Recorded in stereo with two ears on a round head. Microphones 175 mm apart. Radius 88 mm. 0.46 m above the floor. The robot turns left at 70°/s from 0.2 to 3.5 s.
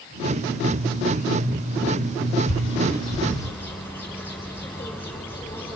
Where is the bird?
85° left, 3.5 m; by 5.8 s 10° left (ahead or behind), 3.5 m.